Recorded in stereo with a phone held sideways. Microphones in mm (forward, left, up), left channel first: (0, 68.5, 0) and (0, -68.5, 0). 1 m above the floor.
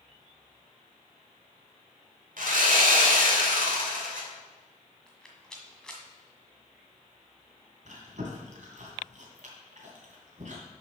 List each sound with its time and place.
2.4 s sawing: 75° right (ahead or behind), 2 m
5.1 s a rattle: 5° left (ahead or behind), 1.6 m
7.8 s chewing: 65° right (ahead or behind), 2.5 m